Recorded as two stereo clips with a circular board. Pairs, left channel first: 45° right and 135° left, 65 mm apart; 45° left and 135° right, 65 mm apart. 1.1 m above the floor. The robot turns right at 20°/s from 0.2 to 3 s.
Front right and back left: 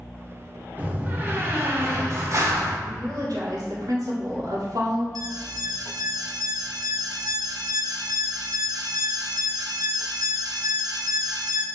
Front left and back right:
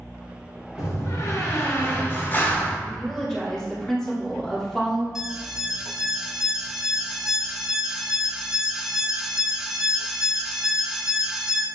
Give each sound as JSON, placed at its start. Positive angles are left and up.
{"t": 0.8, "sound": "a door slam", "azimuth_deg": 70, "distance_m": 2.5}
{"t": 2.9, "sound": "a woman speaking", "azimuth_deg": 125, "distance_m": 3.0}
{"t": 5.2, "sound": "an alarm", "azimuth_deg": 145, "distance_m": 1.1}